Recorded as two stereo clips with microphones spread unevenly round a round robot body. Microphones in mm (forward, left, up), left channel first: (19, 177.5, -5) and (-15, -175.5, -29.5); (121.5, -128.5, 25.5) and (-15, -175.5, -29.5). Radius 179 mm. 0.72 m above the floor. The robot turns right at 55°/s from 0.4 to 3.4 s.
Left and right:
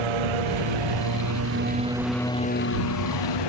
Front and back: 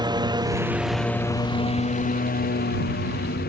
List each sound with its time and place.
0.0 s a lawn mower: 100° right; by 3.5 s 65° left